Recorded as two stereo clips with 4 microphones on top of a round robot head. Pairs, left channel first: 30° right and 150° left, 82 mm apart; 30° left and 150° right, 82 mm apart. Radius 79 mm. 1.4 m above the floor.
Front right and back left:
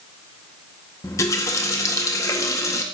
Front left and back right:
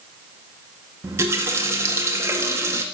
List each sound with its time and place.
1.0 s a running tap: 85° right, 1.8 m